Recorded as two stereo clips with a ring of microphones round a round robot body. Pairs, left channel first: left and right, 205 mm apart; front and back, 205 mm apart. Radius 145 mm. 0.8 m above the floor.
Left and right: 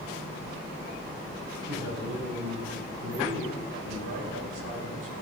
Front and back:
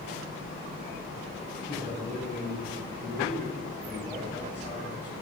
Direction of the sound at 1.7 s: 100° right.